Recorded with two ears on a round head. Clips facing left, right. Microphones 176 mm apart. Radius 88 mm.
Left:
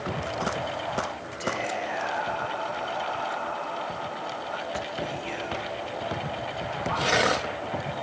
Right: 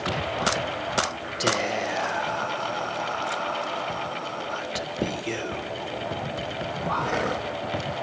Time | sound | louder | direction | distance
1.4 | whispering | right 4 dB | 50° right (ahead or behind) | 1.2 m